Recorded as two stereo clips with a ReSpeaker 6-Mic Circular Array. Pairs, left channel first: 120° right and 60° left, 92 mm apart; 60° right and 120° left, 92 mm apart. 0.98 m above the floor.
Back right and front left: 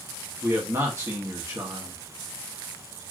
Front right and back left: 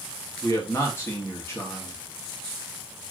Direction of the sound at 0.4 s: Straight ahead.